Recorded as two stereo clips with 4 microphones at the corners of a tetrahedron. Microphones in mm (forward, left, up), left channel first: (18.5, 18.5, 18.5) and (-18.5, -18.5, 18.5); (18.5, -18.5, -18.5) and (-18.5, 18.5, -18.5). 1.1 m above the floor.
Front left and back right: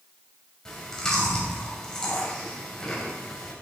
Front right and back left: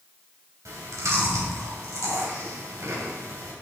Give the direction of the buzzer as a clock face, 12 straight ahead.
I don't hear a buzzer.